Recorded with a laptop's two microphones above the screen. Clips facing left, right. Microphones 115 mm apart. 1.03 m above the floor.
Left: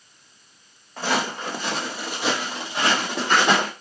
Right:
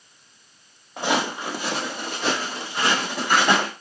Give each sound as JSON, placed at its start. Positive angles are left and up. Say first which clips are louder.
{"t": 1.0, "sound": "footsteps", "louder": "right 1 dB", "side_deg": -20, "distance_m": 1.2}